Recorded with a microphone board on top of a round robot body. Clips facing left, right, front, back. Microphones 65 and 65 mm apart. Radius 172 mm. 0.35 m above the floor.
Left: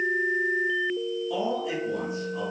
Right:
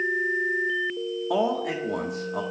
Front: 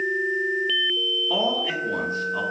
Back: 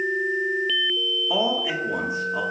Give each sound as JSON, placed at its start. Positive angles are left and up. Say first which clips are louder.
{"t": 1.3, "sound": "a man speaking", "louder": "right 6 dB, back 1 dB", "azimuth_deg": -100, "distance_m": 1.5}